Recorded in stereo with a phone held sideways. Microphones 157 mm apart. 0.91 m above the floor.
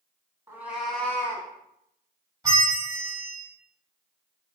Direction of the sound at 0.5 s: 15° right (ahead or behind).